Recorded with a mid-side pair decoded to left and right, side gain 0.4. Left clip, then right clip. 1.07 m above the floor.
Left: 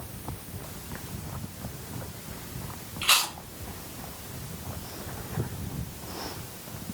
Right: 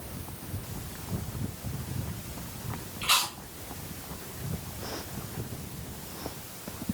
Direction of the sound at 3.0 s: 65° left.